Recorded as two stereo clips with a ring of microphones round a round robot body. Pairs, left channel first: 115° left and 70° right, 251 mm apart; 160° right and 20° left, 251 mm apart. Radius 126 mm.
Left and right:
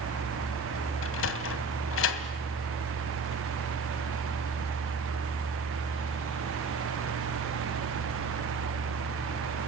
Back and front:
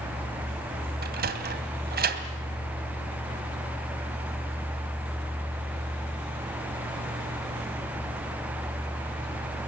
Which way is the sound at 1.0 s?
75° left.